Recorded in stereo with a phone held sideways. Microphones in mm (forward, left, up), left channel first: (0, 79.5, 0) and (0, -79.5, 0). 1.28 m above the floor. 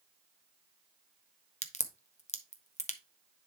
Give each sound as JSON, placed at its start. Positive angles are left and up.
{"t": 1.6, "sound": "a crack", "side_deg": 45, "distance_m": 0.8}